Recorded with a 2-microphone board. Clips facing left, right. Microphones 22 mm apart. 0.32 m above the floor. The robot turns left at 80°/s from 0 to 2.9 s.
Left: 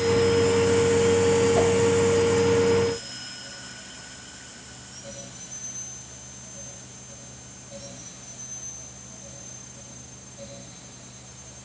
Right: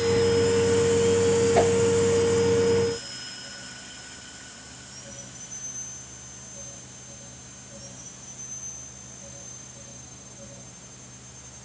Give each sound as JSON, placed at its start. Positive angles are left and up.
{"t": 1.6, "sound": "a whoosh", "side_deg": -35, "distance_m": 2.5}